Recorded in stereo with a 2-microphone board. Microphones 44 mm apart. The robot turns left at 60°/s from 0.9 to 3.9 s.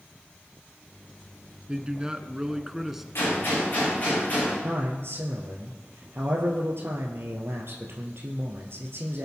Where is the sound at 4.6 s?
60° right (ahead or behind), 2.5 m.